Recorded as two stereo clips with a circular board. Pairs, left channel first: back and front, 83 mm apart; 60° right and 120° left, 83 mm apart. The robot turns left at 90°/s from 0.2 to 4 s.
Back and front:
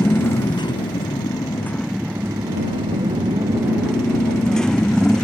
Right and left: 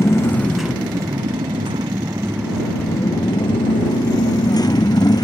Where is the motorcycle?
115° right; by 5.2 s 95° right.